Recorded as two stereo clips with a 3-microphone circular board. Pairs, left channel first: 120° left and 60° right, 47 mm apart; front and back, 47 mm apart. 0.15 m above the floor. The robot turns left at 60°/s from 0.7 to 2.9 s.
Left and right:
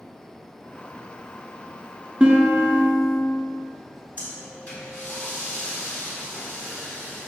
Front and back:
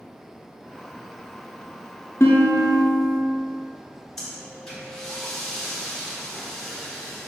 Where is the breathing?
75° left, 1.2 m.